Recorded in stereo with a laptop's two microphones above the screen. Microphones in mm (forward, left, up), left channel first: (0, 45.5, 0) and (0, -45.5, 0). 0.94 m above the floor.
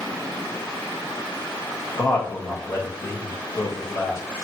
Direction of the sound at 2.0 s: 35° left (ahead or behind).